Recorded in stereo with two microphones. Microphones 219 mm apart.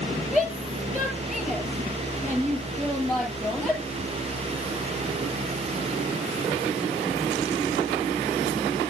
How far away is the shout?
About 7.5 m.